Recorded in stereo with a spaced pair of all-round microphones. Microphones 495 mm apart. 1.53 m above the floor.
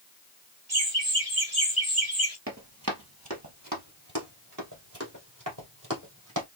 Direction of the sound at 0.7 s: 50° right (ahead or behind).